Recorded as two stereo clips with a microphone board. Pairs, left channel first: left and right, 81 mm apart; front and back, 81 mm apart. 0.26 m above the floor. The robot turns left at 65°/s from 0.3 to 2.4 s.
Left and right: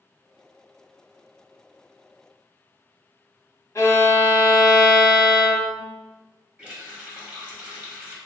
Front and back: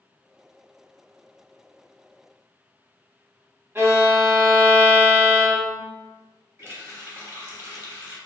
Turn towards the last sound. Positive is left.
turn(degrees=-150)